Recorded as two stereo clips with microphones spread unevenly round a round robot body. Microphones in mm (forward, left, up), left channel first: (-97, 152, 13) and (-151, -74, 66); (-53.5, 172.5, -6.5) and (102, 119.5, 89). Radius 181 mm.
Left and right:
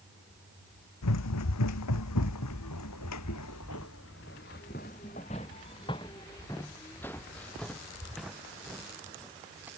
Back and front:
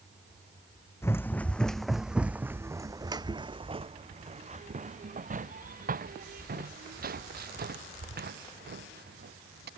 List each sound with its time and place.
1.0 s running footsteps: 75° left; by 9.7 s 20° right